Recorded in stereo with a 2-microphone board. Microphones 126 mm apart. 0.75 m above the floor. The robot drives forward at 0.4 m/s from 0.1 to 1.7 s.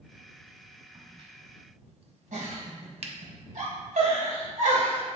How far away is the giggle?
About 2.5 m.